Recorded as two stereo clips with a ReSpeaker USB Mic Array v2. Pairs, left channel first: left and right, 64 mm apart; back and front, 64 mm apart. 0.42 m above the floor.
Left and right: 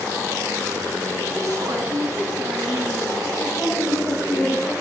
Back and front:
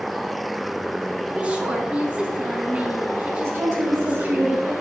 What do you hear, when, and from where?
1.3 s a woman speaking: 70° right, 4.5 m
3.4 s a woman speaking: 45° left, 5 m